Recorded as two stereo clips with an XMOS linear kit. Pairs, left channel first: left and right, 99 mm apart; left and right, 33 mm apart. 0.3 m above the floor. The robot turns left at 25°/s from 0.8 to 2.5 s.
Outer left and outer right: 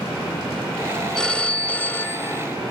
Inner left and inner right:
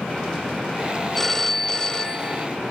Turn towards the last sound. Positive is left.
turn(degrees=135)